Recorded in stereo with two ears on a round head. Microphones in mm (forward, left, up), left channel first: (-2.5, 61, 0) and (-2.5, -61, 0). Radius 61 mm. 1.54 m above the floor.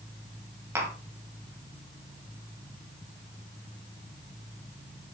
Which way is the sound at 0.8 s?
20° right (ahead or behind).